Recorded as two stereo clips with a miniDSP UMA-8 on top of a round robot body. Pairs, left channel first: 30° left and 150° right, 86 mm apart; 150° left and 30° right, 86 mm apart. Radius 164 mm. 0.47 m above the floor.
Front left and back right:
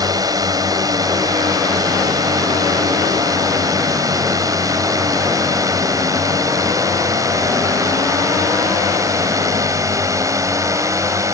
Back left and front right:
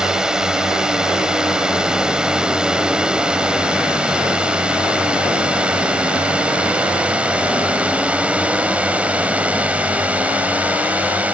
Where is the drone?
110° right; by 11.3 s 100° right.